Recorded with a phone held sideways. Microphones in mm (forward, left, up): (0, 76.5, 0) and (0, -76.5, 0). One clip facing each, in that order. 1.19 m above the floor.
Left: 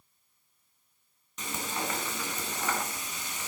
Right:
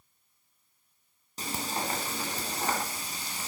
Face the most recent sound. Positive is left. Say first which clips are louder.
# right 1 dB
turn(degrees=-35)  # may be behind; listen again after turning